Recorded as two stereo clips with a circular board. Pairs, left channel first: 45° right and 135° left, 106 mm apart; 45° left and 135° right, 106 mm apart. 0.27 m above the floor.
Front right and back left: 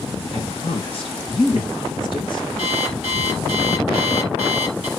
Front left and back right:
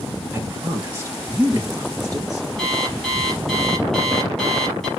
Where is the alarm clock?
40° right, 4.5 m.